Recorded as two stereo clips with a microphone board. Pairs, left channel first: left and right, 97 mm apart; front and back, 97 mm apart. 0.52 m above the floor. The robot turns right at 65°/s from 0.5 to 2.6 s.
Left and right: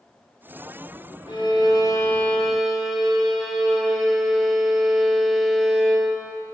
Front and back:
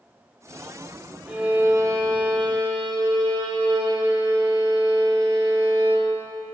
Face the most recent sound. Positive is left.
turn(degrees=-175)